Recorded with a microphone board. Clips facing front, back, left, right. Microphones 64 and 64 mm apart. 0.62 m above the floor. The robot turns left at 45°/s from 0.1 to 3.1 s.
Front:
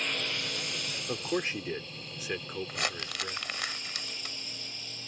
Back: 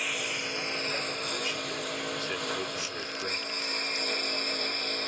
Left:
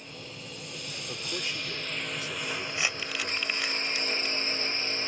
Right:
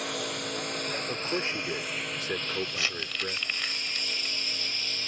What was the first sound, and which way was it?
A lawn mower, 95° right.